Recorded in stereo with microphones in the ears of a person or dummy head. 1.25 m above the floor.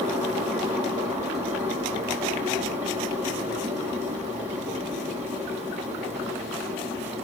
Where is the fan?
10° right (ahead or behind), 3 m.